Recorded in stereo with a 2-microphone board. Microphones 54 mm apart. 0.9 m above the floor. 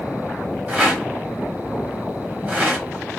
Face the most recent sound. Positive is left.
turn(degrees=-30)  # may be behind; listen again after turning